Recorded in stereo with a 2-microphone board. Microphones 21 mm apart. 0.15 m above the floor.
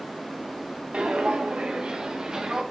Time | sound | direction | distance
0.9 | footsteps | 70° right (ahead or behind) | 1.7 m